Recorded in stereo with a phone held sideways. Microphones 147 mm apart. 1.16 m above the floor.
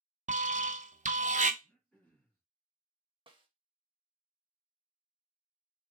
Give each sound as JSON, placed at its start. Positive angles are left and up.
{"t": 0.3, "sound": "an alarm", "side_deg": -55, "distance_m": 0.5}
{"t": 1.6, "sound": "throat clearing", "side_deg": 10, "distance_m": 2.0}
{"t": 3.3, "sound": "a snare drum", "side_deg": -35, "distance_m": 0.8}